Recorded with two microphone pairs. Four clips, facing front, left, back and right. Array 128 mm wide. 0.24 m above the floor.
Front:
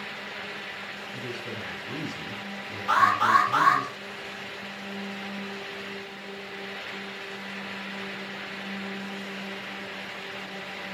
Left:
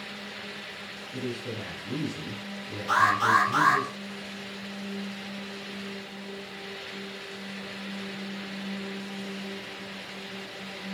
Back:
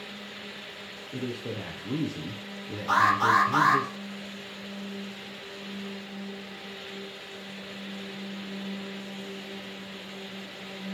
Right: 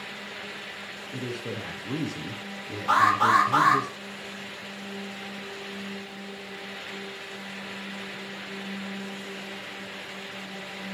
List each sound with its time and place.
1.1 s a man speaking: 130° right, 5.5 m
2.9 s an alarm: 95° right, 4.5 m